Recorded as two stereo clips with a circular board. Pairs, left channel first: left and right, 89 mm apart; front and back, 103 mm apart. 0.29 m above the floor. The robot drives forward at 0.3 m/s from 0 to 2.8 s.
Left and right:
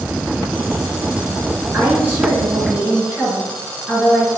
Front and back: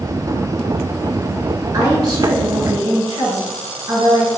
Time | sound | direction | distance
1.7 | a woman speaking | 155° right | 1.9 m